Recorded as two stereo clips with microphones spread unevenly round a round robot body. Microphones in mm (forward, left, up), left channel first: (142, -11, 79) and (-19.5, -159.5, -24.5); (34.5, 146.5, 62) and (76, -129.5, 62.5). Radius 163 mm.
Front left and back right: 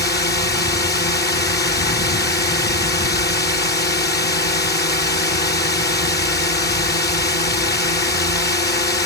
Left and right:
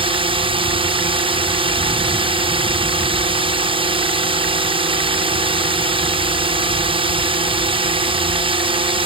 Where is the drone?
10° right.